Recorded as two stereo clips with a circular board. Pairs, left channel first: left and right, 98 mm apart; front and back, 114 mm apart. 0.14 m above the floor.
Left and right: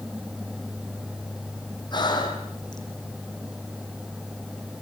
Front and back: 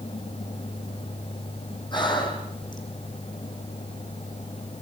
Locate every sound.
1.9 s breathing: 50° left, 4.5 m